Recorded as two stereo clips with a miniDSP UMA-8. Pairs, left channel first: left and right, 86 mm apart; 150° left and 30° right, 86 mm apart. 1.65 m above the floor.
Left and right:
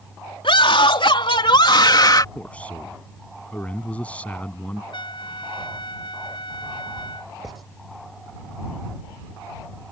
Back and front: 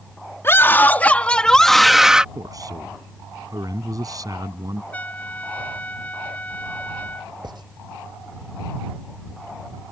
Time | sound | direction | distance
0.4 | a scream | 85° left | ?
2.4 | a man speaking | 15° left | ?
4.9 | a trumpet | 75° left | ?
7.4 | writing | straight ahead | ?